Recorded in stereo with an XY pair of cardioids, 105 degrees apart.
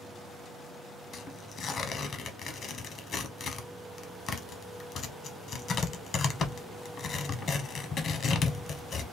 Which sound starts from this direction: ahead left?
Tearing paper, at 1.1 s.